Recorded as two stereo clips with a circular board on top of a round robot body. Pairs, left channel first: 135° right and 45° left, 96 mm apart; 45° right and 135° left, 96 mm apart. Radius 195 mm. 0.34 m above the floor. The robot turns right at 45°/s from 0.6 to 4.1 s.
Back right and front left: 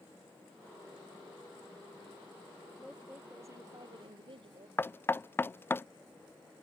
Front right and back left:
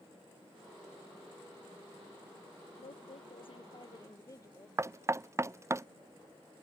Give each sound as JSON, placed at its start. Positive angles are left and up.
{"t": 2.8, "sound": "a woman speaking", "azimuth_deg": -45}
{"t": 4.8, "sound": "knocking", "azimuth_deg": 175}